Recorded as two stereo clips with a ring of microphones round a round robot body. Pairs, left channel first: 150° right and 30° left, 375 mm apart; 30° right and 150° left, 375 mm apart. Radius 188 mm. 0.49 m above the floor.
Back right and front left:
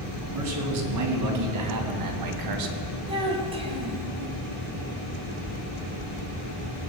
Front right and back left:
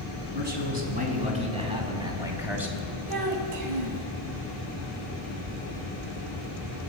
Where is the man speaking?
85° left, 4 m; by 2.9 s 60° left, 3 m.